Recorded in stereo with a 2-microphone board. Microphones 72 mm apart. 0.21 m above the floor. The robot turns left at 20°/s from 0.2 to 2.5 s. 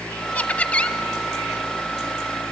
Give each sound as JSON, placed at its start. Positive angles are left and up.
{"t": 0.3, "sound": "laughter", "side_deg": 20, "distance_m": 1.0}